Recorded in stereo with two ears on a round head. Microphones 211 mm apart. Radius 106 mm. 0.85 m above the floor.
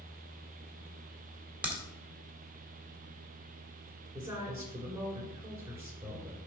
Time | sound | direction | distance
1.6 | a crack | 5° right (ahead or behind) | 1.9 m
4.1 | a woman speaking | 10° right (ahead or behind) | 3 m